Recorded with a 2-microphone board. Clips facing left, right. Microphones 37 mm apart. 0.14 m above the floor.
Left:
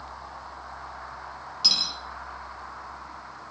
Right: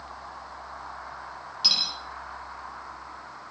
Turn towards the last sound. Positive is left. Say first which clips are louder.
# even
turn(degrees=-10)  # may be behind; listen again after turning